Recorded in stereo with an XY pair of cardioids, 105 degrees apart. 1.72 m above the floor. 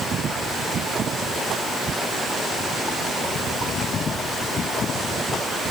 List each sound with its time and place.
Only background noise.